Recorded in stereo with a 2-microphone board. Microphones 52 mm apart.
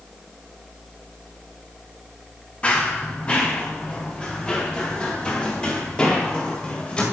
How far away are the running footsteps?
About 3 m.